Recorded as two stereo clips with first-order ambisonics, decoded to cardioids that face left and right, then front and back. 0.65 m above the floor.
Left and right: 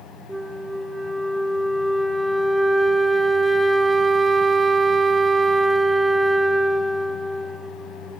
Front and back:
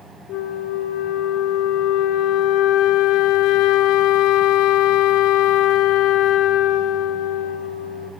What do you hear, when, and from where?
0.3 s a flute: 5° right, 0.8 m